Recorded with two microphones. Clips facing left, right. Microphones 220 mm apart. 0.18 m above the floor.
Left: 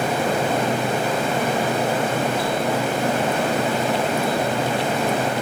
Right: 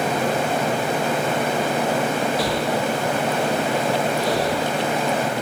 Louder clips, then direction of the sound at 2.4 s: Even; 75° right (ahead or behind).